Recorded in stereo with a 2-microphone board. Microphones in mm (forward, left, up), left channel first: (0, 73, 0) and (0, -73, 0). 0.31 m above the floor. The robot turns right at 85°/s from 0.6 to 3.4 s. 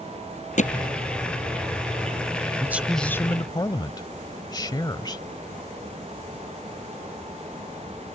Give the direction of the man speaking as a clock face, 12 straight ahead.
1 o'clock.